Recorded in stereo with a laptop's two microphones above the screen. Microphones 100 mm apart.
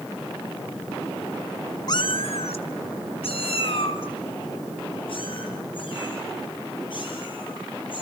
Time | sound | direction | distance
1.9 | a cat meowing | 40° left (ahead or behind) | 0.9 m